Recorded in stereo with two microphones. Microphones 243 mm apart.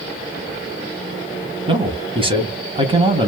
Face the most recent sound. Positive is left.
turn(degrees=-20)  # may be behind; listen again after turning